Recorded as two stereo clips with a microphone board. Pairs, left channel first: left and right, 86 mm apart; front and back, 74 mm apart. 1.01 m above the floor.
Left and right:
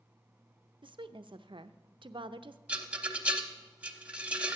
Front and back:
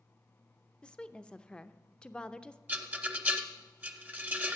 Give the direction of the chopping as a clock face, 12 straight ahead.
No chopping in this recording.